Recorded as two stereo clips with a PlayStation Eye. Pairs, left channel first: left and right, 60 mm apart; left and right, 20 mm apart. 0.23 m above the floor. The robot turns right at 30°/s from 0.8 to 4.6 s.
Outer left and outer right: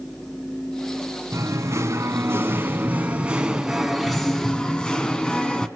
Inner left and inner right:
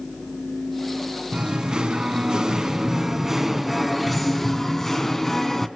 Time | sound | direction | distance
1.3 | singing | 80° right | 2 m